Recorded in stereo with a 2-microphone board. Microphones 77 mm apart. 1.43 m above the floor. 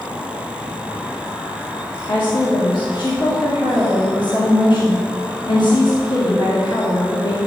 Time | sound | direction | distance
2.1 | a woman speaking | 65° left (ahead or behind) | 2.5 m